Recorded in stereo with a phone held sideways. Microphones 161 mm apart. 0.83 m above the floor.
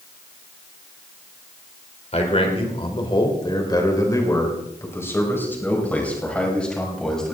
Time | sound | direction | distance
2.1 | a man speaking | 40° left (ahead or behind) | 4 m